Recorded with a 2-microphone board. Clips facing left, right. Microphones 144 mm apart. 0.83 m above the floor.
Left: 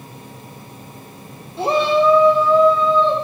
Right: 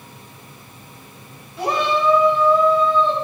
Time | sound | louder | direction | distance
1.6 | a shout | left 4 dB | 30° left (ahead or behind) | 0.7 m